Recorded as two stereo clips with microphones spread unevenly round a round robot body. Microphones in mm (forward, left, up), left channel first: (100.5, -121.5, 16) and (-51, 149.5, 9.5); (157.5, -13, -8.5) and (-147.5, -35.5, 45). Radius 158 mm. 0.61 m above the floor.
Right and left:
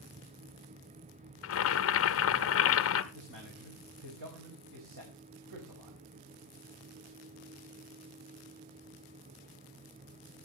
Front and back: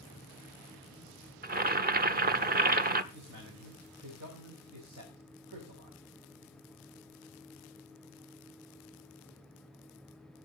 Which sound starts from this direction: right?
Boiling, at 1.4 s.